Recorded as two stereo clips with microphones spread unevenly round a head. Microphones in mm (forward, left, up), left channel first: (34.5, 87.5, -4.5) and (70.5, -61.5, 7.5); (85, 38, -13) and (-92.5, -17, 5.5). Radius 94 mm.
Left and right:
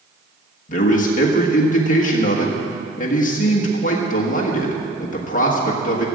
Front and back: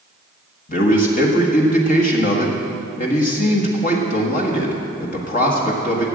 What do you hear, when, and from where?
0.7 s a man speaking: 65° left, 1.6 m